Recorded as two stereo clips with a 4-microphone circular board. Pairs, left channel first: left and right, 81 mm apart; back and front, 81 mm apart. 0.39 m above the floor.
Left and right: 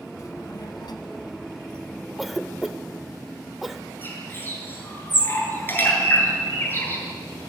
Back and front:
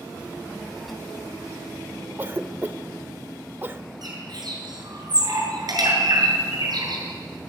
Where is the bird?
30° left, 7 m.